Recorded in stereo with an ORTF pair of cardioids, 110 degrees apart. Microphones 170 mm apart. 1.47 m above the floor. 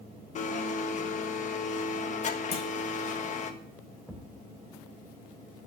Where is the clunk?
35° left, 2 m.